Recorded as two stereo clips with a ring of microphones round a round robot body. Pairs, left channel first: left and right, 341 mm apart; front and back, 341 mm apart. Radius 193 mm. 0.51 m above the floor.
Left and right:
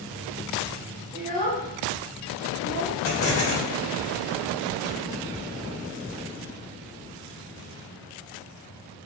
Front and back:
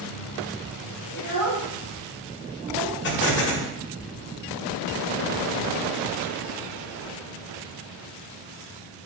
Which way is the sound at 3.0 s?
50° left.